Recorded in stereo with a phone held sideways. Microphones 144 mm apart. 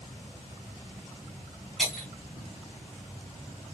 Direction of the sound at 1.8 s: Centre (ahead or behind).